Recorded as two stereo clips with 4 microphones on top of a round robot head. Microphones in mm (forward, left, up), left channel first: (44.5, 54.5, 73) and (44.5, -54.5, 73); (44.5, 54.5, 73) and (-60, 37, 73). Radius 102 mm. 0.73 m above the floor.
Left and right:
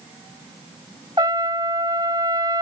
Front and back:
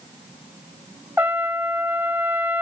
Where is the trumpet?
105° right.